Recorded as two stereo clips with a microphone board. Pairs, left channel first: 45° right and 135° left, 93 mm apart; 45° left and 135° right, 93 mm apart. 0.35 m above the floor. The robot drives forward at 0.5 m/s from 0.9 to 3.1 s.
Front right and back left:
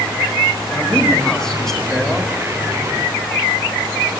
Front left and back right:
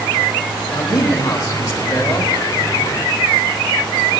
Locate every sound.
0.7 s a man speaking: 25° left, 1.5 m; by 2.3 s 65° left, 1.2 m